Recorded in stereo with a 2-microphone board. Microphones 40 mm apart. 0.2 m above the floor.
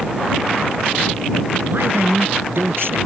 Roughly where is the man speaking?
Right.